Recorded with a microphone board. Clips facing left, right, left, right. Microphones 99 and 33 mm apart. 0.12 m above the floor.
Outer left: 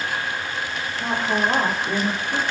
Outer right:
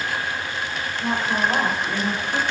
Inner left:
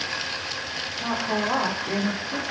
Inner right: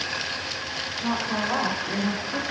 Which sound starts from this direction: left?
A woman speaking, at 1.0 s.